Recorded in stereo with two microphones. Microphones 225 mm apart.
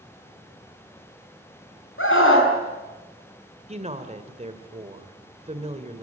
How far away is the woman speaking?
About 2.5 m.